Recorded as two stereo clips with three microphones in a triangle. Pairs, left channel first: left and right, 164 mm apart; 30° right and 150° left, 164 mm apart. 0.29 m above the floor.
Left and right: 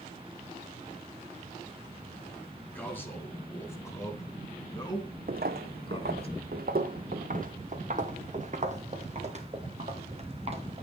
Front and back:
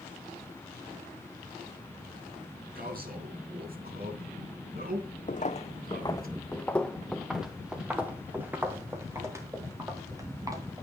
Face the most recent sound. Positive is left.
turn(degrees=-140)